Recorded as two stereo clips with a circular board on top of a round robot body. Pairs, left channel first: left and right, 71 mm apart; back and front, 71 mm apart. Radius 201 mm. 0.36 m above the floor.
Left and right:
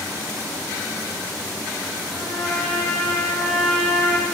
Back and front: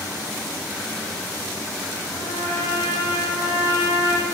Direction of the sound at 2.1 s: 175° right.